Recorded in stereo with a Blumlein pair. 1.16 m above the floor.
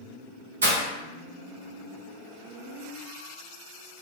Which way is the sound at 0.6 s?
65° right.